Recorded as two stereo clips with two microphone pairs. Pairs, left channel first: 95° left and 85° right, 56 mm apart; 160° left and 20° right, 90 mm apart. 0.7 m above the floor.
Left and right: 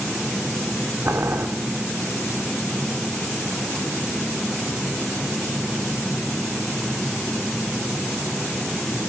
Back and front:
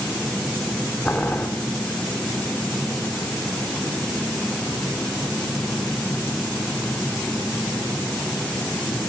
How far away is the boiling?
About 2.5 m.